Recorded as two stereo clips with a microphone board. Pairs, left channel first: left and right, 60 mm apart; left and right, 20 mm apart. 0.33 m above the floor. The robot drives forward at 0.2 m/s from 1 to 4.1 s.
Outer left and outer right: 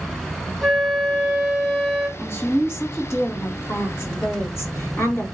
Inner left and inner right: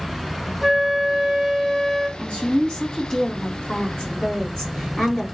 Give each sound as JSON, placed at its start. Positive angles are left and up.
{"t": 0.6, "sound": "a flute", "side_deg": 5, "distance_m": 1.3}
{"t": 2.2, "sound": "a woman speaking", "side_deg": 40, "distance_m": 3.0}